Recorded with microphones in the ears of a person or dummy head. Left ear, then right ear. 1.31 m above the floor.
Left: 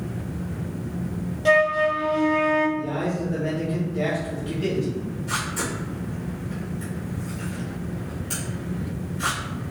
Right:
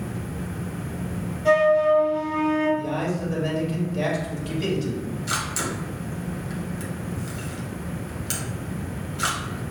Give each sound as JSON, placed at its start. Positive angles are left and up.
{"t": 1.4, "sound": "a flute", "side_deg": 30, "distance_m": 0.8}
{"t": 2.8, "sound": "a man speaking", "side_deg": -30, "distance_m": 2.0}
{"t": 5.3, "sound": "a camera shutter", "side_deg": -65, "distance_m": 1.7}